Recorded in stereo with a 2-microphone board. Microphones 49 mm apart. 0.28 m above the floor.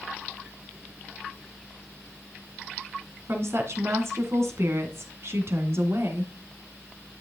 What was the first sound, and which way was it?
A woman speaking, 60° right (ahead or behind).